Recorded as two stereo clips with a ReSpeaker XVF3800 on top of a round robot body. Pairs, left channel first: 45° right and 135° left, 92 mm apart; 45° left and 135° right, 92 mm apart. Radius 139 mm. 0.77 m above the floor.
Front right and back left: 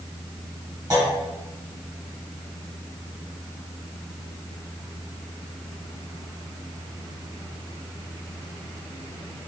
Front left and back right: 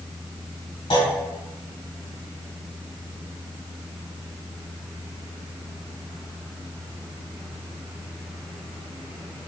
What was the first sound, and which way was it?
A clunk, 80° left.